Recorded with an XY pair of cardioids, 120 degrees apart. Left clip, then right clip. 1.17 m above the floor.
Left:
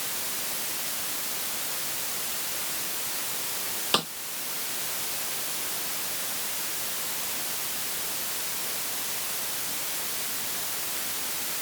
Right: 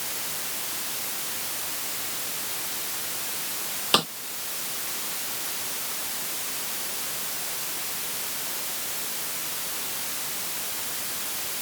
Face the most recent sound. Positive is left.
turn(degrees=-20)